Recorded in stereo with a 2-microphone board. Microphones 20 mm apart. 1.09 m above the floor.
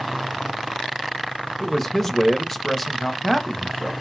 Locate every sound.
1.6 s a man speaking: 10° left (ahead or behind), 0.7 m